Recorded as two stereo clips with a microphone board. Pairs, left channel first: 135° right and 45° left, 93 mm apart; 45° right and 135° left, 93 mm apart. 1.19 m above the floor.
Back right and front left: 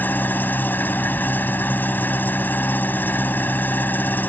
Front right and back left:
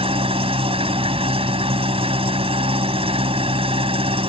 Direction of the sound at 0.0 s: 155° left.